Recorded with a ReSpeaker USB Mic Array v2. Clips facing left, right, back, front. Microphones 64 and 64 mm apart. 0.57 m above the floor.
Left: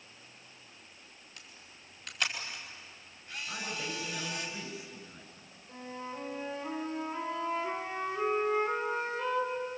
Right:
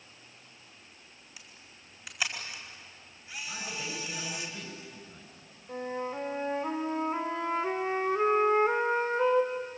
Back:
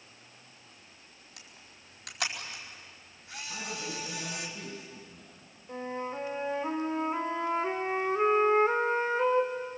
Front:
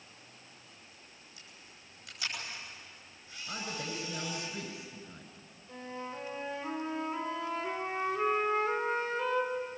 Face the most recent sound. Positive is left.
turn(degrees=-130)